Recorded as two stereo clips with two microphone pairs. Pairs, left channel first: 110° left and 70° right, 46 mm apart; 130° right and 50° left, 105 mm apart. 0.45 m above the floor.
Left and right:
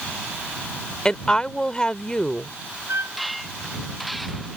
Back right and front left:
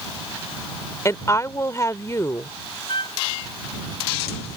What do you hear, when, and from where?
1.1 s a woman speaking: 175° left
2.9 s a trumpet: 90° right